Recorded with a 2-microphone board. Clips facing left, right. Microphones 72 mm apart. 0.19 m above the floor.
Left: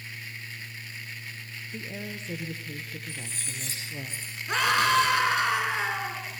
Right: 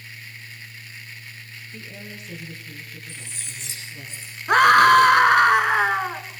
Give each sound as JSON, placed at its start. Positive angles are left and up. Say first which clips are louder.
{"t": 1.7, "sound": "a woman speaking", "louder": "left 3 dB", "side_deg": 25, "distance_m": 3.5}
{"t": 3.1, "sound": "cutlery clinking", "louder": "left 1 dB", "side_deg": 40, "distance_m": 7.5}
{"t": 4.5, "sound": "a scream", "louder": "right 11 dB", "side_deg": -55, "distance_m": 2.5}